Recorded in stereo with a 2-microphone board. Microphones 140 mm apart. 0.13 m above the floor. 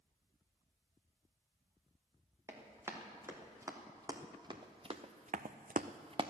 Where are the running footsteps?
15° right (ahead or behind), 3.5 m; by 6.3 s 35° right (ahead or behind), 0.9 m.